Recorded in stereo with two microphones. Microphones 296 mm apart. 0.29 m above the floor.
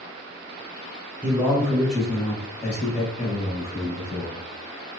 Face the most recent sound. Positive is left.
turn(degrees=10)  # may be behind; listen again after turning